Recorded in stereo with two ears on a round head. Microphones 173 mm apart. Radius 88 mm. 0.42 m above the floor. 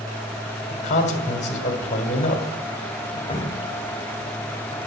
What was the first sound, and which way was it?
A man speaking, 40° left (ahead or behind).